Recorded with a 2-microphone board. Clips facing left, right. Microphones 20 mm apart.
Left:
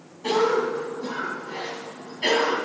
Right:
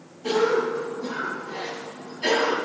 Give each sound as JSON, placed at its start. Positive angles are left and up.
{"t": 0.2, "sound": "a cough", "side_deg": 65, "distance_m": 2.5}